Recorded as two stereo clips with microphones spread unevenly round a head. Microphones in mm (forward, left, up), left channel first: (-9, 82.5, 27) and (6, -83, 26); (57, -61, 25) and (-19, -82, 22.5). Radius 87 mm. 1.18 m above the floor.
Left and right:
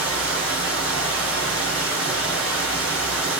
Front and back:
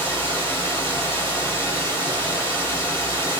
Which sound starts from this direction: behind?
Running water, at 0.0 s.